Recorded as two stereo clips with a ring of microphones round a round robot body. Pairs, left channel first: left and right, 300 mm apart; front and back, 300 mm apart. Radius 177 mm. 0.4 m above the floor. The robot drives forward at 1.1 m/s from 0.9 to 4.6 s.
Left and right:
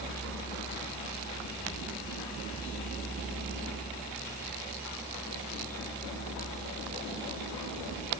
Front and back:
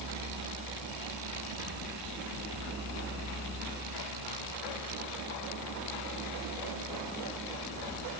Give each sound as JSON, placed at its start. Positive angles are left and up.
{"t": 0.0, "sound": "a vehicle", "azimuth_deg": 165}